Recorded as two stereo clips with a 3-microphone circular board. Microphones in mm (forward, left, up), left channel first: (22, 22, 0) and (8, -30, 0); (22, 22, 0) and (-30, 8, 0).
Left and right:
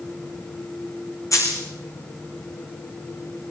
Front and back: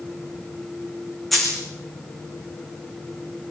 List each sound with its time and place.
1.3 s a dropped coin: 105° left, 4 m